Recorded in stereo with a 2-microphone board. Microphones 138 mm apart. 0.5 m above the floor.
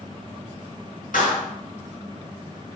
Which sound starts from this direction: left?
A clap, at 1.1 s.